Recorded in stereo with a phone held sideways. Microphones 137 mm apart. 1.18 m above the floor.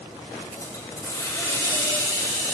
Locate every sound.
0.4 s a hiss: 25° left (ahead or behind), 2.5 m